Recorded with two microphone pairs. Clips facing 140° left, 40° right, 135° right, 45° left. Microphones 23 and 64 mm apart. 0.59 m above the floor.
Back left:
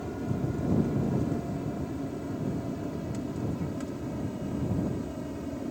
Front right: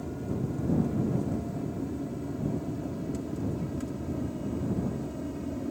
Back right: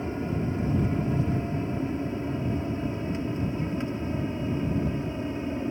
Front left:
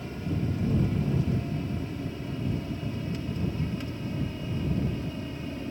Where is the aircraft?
170° right; by 5.7 s 150° right.